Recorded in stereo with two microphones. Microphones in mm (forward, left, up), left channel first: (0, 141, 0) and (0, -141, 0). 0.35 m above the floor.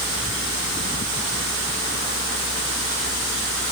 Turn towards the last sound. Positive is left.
No sound to turn to.